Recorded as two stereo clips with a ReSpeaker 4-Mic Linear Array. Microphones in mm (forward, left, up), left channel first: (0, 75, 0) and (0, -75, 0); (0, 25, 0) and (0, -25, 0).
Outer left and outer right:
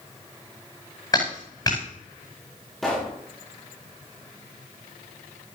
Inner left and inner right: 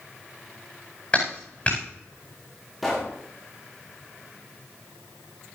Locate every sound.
1.1 s a clap: 25° left (ahead or behind), 9 m
2.8 s a pop: centre (ahead or behind), 4.5 m